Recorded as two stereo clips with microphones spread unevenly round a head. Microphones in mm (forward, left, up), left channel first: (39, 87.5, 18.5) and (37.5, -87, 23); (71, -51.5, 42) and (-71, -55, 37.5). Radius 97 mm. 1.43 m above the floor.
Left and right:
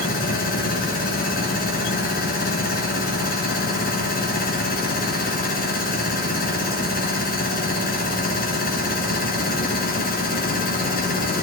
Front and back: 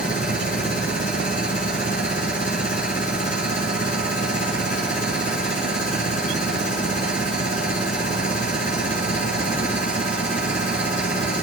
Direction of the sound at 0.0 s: 55° left.